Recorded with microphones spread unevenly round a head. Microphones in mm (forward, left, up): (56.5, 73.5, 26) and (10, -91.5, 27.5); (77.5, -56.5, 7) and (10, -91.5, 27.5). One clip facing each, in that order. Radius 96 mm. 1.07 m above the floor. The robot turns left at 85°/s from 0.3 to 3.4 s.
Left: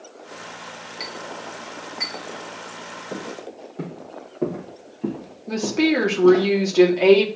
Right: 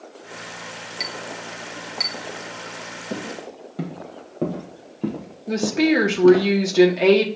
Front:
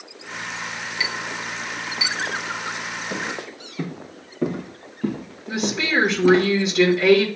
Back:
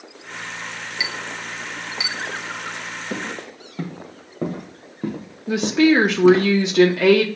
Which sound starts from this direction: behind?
A woman speaking, at 5.5 s.